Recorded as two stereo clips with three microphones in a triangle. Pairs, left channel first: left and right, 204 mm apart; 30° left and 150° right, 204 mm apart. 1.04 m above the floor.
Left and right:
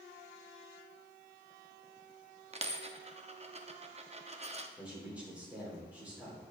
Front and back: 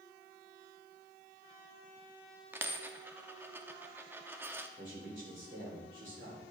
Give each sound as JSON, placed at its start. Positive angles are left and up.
{"t": 2.5, "sound": "a dropped coin", "azimuth_deg": -80, "distance_m": 0.5}
{"t": 4.8, "sound": "a man speaking", "azimuth_deg": -175, "distance_m": 3.0}